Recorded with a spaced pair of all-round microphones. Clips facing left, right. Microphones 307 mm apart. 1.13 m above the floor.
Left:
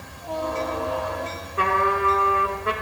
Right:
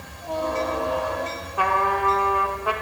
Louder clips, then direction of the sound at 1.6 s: Left 2 dB; 25° left (ahead or behind).